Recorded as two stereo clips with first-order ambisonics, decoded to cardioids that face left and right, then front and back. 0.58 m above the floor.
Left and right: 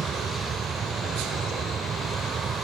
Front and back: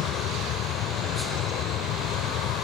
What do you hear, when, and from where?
0.0 s an aircraft: 30° right